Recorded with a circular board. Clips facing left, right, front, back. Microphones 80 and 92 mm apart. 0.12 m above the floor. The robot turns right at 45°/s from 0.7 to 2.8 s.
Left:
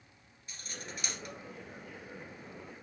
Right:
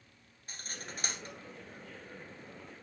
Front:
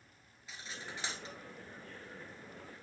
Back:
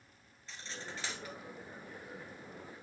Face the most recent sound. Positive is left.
turn(degrees=15)